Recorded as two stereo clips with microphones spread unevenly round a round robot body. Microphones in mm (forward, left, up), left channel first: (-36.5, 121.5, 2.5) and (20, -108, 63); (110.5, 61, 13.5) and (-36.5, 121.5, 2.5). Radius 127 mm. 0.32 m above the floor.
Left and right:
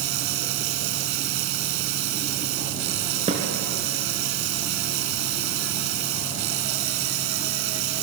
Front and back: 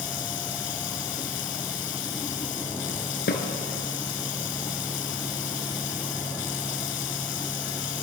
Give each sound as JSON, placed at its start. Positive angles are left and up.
{"t": 0.0, "sound": "running water", "azimuth_deg": -55, "distance_m": 1.0}
{"t": 3.3, "sound": "a snare drum", "azimuth_deg": -10, "distance_m": 4.0}